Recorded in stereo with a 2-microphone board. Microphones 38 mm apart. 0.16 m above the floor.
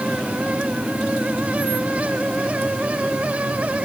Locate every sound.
Only background noise.